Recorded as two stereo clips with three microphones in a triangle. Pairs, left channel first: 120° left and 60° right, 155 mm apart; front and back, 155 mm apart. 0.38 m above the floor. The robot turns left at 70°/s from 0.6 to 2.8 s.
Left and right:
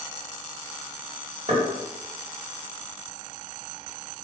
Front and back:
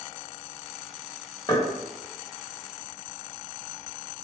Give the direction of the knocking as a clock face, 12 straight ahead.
2 o'clock.